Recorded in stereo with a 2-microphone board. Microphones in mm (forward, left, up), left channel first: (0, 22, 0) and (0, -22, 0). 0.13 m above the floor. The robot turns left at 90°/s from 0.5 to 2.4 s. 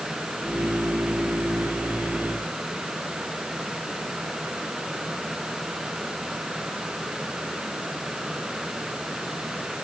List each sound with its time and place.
Only background noise.